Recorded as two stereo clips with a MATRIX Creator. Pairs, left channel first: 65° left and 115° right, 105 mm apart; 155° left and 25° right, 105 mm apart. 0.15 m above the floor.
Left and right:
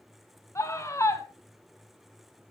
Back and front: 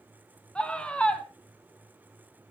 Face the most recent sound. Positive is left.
turn(degrees=90)